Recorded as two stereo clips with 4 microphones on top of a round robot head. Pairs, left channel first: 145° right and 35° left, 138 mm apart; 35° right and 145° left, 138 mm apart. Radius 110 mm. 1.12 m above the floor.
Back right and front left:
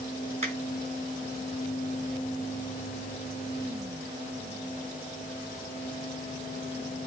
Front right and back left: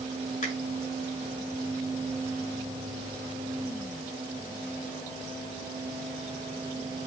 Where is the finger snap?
5° right, 6.5 m.